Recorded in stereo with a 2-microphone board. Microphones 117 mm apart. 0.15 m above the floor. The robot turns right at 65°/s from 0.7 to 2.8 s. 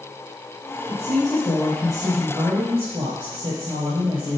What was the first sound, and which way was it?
A woman speaking, 105° left.